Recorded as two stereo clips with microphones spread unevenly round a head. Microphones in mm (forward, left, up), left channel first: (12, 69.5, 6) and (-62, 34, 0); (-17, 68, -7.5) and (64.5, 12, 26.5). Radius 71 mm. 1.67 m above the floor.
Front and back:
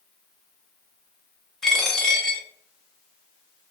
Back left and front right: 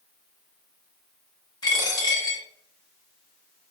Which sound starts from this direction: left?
A dropped coin, at 1.6 s.